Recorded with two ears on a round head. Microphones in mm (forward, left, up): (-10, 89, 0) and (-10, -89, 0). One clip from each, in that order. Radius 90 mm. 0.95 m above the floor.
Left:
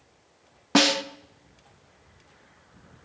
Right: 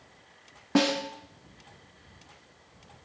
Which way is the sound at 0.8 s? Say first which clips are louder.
Left 5 dB; 50° left (ahead or behind).